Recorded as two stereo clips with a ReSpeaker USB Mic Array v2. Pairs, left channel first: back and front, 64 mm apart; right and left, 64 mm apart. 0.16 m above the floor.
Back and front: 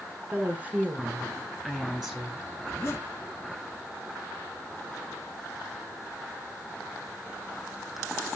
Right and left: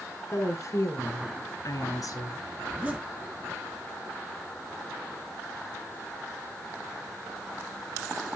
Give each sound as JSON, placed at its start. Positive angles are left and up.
{"t": 0.3, "sound": "a woman speaking", "azimuth_deg": -60, "distance_m": 2.0}
{"t": 2.6, "sound": "a zipper", "azimuth_deg": 145, "distance_m": 1.8}